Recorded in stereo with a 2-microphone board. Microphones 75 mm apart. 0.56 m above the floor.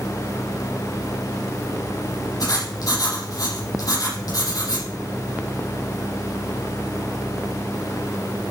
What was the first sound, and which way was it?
Writing, 60° left (ahead or behind).